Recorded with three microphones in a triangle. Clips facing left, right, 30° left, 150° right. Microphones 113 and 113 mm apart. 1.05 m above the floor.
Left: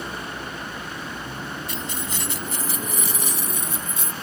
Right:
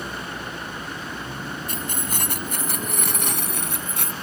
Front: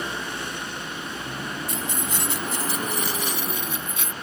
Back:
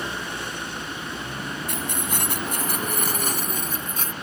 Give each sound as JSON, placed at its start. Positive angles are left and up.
{"t": 1.7, "sound": "keys jangling", "azimuth_deg": -130}